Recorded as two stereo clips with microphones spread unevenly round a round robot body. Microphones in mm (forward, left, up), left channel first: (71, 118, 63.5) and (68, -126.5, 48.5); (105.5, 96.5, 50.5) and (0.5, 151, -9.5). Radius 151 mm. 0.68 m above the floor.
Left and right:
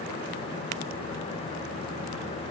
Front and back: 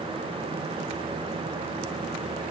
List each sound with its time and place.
Only background noise.